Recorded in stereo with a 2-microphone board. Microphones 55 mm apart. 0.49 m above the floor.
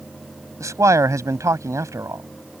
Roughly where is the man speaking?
Right.